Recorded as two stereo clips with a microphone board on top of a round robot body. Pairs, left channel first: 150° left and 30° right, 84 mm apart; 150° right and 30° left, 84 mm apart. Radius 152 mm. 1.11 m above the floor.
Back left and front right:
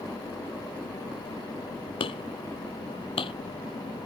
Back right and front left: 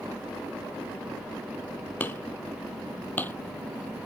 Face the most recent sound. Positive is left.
turn(degrees=140)